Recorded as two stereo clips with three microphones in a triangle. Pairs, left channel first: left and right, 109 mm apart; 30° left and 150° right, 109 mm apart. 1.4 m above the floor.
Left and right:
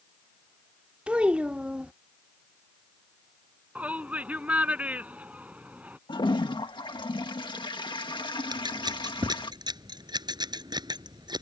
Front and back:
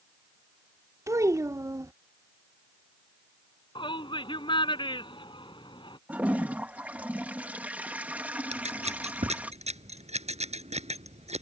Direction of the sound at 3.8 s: 15° right.